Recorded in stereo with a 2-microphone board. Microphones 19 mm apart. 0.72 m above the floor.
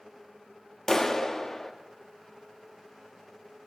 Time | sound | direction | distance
0.9 | a clap | 20° left (ahead or behind) | 0.9 m